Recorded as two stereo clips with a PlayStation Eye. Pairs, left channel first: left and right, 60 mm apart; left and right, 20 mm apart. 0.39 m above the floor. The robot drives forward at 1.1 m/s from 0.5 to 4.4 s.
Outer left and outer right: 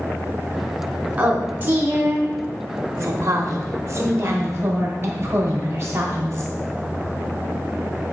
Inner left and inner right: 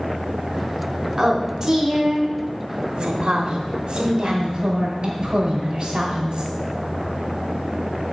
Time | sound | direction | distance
1.2 | a woman speaking | 20° right (ahead or behind) | 2.5 m